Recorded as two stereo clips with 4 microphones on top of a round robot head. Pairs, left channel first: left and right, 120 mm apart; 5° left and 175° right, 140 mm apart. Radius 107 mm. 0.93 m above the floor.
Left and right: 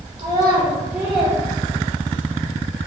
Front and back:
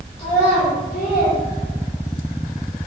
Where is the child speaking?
40° right, 0.9 m; by 2.3 s 15° left, 1.3 m.